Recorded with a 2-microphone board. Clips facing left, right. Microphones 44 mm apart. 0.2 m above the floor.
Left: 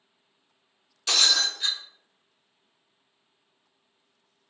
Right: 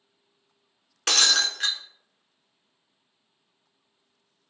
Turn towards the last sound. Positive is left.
turn(degrees=-70)  # may be behind; listen again after turning